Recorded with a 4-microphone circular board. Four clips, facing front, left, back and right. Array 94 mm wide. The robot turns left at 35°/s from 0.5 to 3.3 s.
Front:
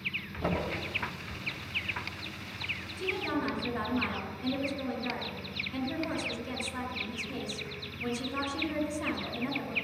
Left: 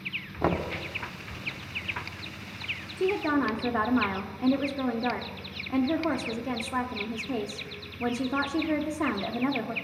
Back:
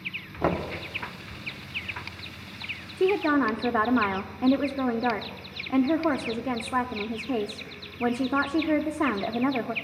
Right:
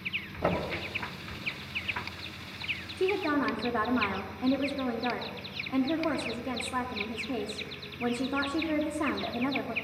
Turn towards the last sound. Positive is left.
turn(degrees=175)